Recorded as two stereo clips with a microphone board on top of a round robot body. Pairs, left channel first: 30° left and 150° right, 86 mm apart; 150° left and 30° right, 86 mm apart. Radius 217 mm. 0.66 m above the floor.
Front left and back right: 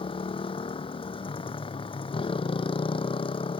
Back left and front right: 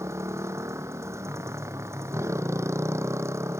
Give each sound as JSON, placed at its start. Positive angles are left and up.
{"t": 0.0, "sound": "a motorcycle", "azimuth_deg": 25}